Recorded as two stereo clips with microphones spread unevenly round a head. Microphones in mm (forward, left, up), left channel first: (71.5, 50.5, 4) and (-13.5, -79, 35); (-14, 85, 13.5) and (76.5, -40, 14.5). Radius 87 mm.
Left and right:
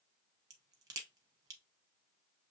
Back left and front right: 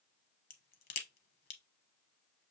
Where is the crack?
165° left, 0.9 m.